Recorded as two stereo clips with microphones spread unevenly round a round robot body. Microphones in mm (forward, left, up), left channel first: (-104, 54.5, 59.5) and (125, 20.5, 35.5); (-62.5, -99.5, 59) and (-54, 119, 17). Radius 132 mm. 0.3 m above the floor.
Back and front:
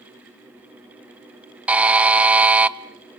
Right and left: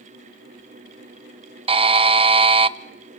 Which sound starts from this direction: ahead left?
A buzzer, at 1.7 s.